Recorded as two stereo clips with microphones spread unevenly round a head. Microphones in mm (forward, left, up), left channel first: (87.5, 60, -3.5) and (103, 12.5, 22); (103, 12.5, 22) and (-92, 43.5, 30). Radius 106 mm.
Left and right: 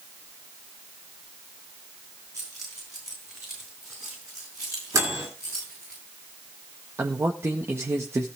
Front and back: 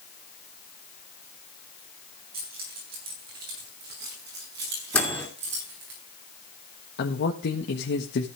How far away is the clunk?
I don't hear a clunk.